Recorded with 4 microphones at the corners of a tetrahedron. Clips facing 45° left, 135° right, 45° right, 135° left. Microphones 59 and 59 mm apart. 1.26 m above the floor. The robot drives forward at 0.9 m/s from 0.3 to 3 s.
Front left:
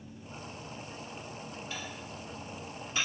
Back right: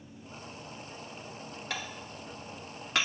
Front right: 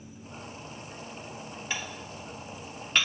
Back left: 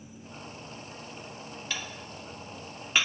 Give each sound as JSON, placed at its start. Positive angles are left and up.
{"t": 1.7, "sound": "dishes clattering", "azimuth_deg": -115, "distance_m": 1.5}